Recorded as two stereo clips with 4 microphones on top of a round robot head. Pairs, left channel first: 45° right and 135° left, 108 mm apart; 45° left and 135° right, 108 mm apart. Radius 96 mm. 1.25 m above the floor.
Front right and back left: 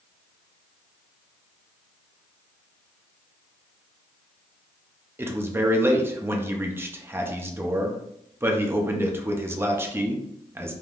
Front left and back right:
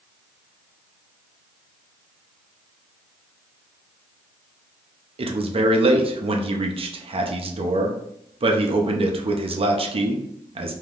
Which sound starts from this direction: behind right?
A man speaking, at 5.2 s.